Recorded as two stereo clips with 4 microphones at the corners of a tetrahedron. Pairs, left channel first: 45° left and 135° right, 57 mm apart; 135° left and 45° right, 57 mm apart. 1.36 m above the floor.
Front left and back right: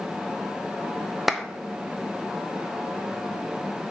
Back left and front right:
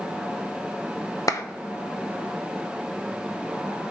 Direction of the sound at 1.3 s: 135° left.